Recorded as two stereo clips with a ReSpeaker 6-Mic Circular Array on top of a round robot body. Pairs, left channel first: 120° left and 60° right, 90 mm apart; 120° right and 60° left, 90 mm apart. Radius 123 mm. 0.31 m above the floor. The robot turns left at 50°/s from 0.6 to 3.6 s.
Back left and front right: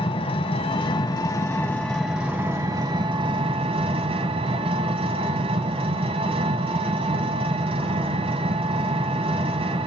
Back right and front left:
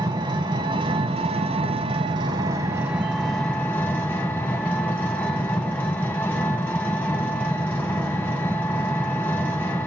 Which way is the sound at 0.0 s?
105° left.